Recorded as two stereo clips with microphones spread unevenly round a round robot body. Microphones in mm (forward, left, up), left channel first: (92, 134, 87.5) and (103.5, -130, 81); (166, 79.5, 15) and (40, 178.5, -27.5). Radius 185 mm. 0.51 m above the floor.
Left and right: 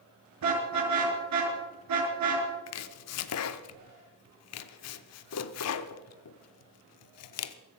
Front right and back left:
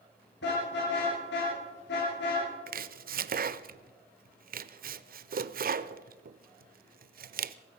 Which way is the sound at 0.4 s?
75° right.